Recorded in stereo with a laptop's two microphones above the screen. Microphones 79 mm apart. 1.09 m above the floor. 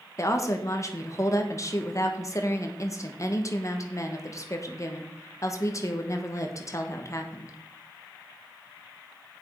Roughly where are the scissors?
I don't hear scissors.